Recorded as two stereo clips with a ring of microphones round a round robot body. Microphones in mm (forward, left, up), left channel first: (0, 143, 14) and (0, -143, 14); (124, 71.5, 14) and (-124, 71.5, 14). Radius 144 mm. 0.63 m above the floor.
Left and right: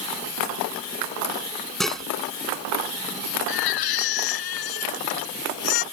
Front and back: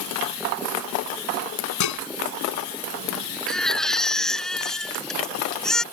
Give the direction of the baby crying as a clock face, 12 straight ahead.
9 o'clock.